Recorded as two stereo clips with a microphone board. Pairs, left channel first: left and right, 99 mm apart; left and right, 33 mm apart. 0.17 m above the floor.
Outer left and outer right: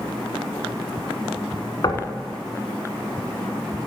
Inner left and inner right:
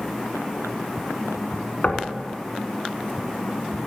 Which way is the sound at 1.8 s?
45° left (ahead or behind).